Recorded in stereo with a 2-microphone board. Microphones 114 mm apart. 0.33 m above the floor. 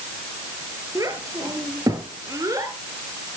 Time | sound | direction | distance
0.9 | a child speaking | 30° right (ahead or behind) | 3.5 m